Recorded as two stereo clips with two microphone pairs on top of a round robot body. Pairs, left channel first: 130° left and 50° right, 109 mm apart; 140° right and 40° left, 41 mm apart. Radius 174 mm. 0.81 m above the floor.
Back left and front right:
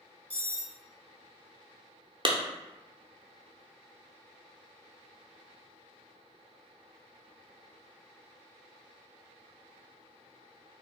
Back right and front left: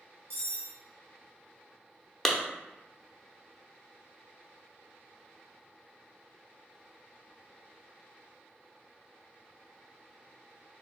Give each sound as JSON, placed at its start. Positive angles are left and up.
{"t": 0.3, "sound": "cutlery clinking", "azimuth_deg": 50, "distance_m": 0.9}
{"t": 2.2, "sound": "a clap", "azimuth_deg": -70, "distance_m": 0.8}